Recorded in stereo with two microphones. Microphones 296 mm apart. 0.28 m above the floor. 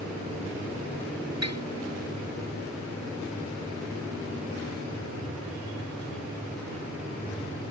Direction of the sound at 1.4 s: 60° right (ahead or behind).